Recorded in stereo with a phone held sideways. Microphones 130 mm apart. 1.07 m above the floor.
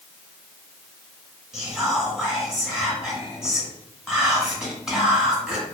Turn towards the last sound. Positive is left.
turn(degrees=-5)  # may be behind; listen again after turning